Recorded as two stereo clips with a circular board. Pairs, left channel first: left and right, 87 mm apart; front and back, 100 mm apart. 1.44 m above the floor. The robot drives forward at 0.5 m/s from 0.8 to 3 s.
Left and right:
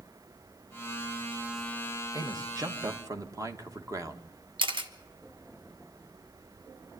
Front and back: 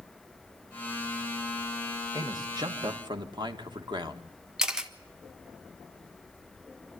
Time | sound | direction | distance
2.1 | a man speaking | 130° right | 1.8 m
4.6 | a camera shutter | 95° right | 1.4 m